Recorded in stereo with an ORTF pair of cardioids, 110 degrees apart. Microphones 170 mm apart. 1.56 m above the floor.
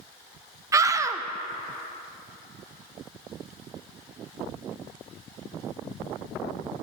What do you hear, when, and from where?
0.7 s a scream: 20° right, 0.5 m